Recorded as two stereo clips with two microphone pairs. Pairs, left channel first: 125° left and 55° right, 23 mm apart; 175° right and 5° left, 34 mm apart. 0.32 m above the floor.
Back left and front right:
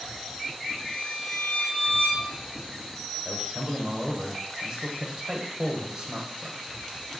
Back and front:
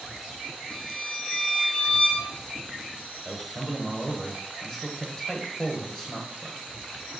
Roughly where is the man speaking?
Right.